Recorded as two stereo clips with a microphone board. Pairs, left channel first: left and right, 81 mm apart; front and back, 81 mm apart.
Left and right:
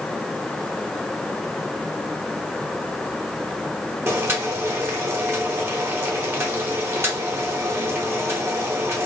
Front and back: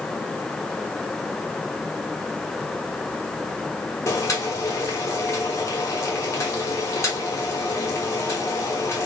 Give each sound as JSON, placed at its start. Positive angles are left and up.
{"t": 4.1, "sound": "boiling", "azimuth_deg": -45, "distance_m": 1.0}